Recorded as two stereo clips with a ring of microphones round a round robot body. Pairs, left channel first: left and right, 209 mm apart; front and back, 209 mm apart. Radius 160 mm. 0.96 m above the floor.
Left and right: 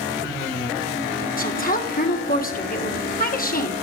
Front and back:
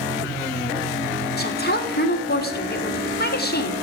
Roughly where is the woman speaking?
Ahead left.